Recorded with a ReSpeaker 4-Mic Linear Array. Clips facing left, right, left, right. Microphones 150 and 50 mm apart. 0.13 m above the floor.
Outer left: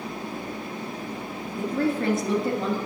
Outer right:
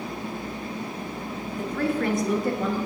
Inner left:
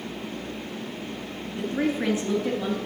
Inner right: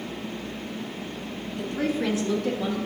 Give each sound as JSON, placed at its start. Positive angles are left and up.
{"t": 1.6, "sound": "a woman speaking", "side_deg": 25, "distance_m": 1.2}